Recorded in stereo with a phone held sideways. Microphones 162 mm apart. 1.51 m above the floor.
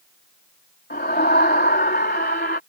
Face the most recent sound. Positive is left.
turn(degrees=85)